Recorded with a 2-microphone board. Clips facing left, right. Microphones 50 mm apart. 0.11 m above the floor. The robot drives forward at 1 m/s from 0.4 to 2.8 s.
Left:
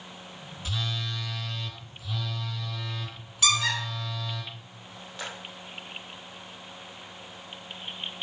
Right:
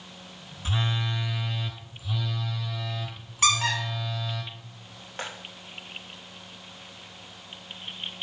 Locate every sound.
0.7 s a phone buzzing: 30° right (ahead or behind), 0.5 m; by 4.4 s 5° right (ahead or behind), 2 m
3.4 s a squeak: 40° right (ahead or behind), 3 m